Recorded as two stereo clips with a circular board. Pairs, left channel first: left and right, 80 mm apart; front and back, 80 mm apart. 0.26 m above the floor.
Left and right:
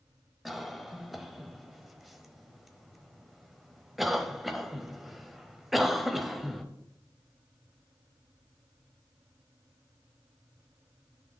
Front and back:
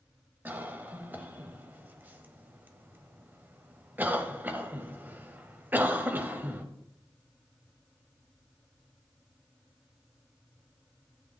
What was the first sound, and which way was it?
A cough, straight behind.